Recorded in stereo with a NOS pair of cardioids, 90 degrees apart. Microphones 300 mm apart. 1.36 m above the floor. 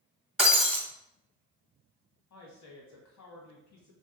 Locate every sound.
0.4 s breaking glass: straight ahead, 1.7 m
2.3 s a woman speaking: 65° left, 1.8 m